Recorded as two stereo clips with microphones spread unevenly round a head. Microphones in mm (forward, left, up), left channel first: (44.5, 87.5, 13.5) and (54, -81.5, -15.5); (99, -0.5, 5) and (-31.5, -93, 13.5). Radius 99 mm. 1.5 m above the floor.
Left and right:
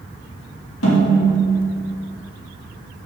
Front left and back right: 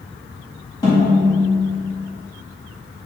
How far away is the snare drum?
About 3 m.